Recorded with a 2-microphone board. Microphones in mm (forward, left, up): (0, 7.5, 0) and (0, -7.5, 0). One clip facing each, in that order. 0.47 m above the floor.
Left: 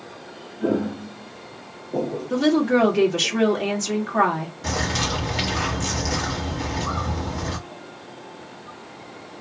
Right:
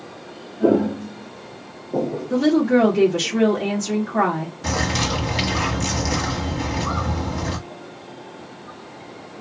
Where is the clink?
No clink in this recording.